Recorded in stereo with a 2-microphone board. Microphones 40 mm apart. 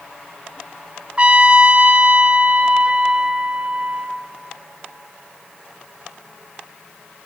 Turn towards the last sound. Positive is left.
turn(degrees=-30)  # may be behind; listen again after turning